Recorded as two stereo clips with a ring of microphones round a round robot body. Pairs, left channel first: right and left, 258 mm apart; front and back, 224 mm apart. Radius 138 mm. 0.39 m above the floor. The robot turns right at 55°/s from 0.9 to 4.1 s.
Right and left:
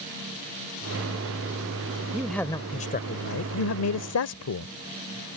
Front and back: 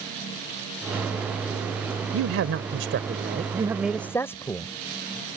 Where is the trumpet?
No trumpet in this recording.